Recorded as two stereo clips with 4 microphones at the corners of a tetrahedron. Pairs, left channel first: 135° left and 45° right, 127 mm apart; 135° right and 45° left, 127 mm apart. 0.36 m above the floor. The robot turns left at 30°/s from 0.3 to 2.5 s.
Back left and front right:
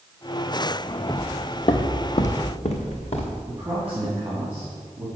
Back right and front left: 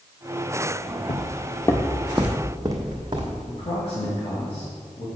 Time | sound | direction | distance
1.1 | footsteps | 135° right | 0.6 m
3.5 | a man speaking | 115° right | 2.5 m